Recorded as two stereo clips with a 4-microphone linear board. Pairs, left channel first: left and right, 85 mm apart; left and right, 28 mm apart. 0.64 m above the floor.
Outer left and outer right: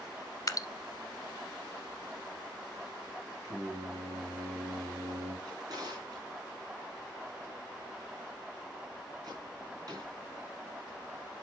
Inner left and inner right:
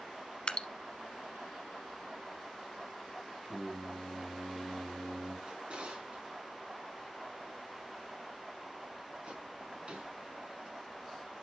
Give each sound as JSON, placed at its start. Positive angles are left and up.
{"t": 0.5, "sound": "dripping", "side_deg": 50, "distance_m": 0.7}
{"t": 3.4, "sound": "singing", "side_deg": -50, "distance_m": 3.5}
{"t": 5.5, "sound": "a drawer", "side_deg": -50, "distance_m": 3.5}